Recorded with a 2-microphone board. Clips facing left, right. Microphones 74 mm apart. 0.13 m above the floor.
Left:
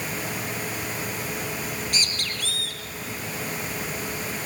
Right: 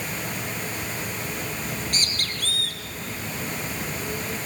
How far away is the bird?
About 4 m.